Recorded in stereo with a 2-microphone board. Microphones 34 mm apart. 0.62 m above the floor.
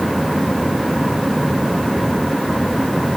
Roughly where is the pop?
No pop in this recording.